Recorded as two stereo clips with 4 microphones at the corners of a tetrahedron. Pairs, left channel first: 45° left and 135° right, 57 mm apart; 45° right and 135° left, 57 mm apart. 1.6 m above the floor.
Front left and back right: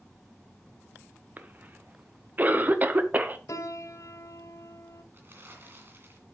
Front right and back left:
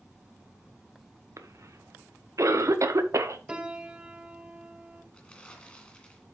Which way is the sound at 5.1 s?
105° right.